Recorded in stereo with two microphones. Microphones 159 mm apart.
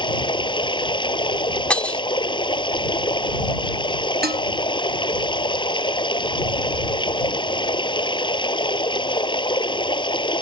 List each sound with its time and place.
0.0 s running water: 30° left (ahead or behind)
1.7 s breaking glass: 10° left (ahead or behind)
4.2 s dishes clattering: 75° right (ahead or behind)